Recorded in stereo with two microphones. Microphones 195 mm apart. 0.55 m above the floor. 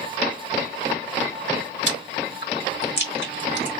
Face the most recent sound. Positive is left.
turn(degrees=65)  # may be behind; listen again after turning